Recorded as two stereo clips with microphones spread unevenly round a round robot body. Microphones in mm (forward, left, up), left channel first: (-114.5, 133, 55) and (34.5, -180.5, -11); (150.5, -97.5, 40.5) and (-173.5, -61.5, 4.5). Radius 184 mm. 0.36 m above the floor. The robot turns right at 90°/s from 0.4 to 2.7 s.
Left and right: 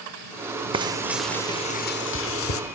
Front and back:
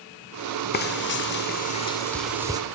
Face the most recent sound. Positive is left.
turn(degrees=135)